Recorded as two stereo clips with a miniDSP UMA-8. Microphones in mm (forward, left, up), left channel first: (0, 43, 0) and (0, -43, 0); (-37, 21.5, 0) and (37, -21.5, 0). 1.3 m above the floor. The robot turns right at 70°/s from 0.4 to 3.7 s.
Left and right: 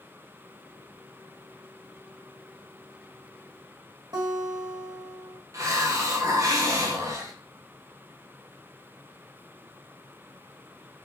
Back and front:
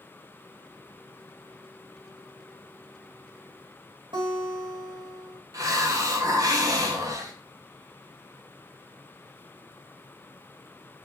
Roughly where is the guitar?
Ahead right.